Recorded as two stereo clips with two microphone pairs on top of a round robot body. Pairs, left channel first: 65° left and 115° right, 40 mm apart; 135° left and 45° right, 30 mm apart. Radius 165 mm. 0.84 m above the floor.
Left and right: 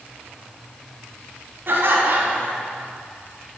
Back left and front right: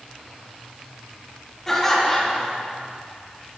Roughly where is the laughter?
Behind right.